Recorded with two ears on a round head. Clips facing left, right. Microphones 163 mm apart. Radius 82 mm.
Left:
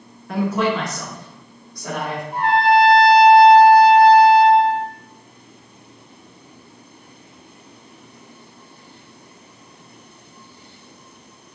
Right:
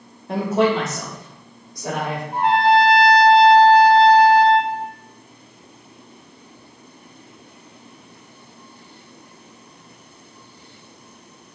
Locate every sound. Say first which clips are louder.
0.3 s a man speaking: right 2 dB; 25° right (ahead or behind), 1.4 m; by 2.2 s 20° right (ahead or behind), 2.5 m
2.3 s a trumpet: even; 20° right (ahead or behind), 2 m